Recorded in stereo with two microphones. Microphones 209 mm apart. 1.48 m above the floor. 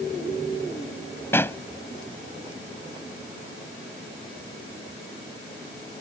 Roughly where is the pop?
Centre.